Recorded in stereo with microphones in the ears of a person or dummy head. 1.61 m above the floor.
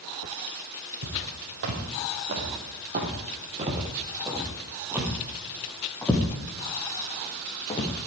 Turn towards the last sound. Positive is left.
turn(degrees=30)  # may be behind; listen again after turning